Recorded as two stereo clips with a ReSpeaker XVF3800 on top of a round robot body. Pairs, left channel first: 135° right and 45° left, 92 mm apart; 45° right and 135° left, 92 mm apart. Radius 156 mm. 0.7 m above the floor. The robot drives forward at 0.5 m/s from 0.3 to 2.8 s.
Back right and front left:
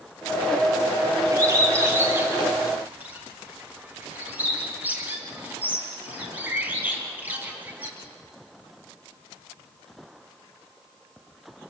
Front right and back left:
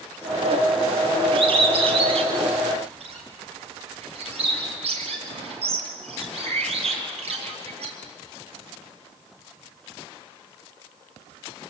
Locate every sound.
1.3 s a bird: 105° left, 3 m; by 7.9 s 120° left, 3 m